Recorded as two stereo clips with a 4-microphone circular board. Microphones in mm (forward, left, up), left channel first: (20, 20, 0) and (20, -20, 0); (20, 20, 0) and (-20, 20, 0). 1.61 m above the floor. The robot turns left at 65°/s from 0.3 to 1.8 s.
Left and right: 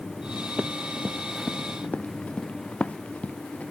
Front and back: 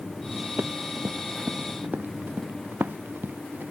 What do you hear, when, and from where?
0.6 s running footsteps: 145° right; by 3.7 s 150° left